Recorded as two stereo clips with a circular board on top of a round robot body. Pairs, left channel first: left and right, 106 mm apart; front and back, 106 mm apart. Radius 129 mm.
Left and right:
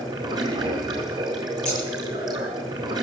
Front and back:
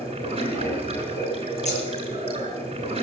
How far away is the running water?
About 4.5 m.